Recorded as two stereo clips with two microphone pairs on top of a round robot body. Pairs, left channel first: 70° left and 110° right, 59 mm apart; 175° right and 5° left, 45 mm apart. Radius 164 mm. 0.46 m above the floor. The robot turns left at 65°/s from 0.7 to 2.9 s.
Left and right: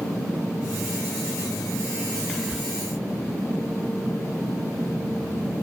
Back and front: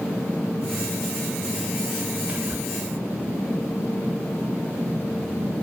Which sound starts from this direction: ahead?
Whispering, at 2.3 s.